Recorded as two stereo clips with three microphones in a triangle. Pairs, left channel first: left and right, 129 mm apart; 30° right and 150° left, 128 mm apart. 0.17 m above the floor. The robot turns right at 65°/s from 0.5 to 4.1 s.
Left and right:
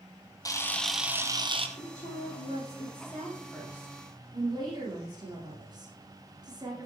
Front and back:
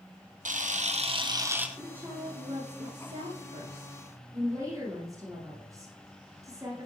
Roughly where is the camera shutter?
Behind left.